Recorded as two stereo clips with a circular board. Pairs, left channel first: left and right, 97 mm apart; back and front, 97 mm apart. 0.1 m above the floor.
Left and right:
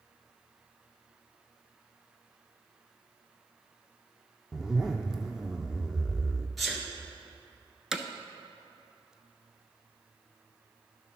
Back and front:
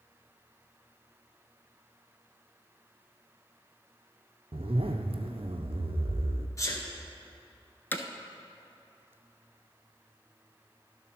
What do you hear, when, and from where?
4.5 s a zipper: 5° right, 0.8 m
6.6 s a sneeze: straight behind, 1.6 m
7.9 s hammering: 165° right, 0.6 m